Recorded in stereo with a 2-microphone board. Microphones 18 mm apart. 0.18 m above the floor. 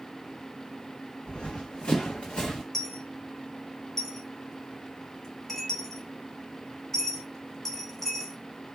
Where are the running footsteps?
70° left (ahead or behind), 0.6 m; by 2.6 s 80° left, 1.2 m.